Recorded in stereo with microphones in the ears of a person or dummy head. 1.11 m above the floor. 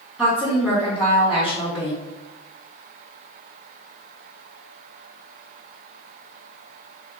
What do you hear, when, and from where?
0.2 s a woman speaking: centre (ahead or behind), 1.2 m